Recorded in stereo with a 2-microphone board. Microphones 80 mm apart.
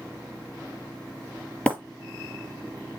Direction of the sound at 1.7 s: 15° left (ahead or behind).